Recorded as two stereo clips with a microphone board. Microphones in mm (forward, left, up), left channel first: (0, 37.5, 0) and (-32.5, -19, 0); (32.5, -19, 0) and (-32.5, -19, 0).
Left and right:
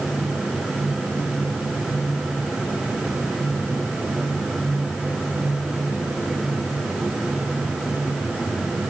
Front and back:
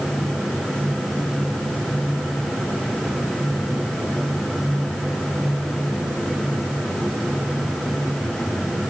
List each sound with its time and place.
Only background noise.